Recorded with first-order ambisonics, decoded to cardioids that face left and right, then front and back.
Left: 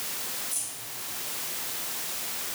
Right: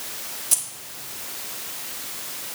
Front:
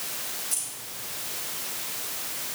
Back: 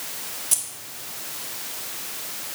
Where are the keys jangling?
125° right, 1.0 m.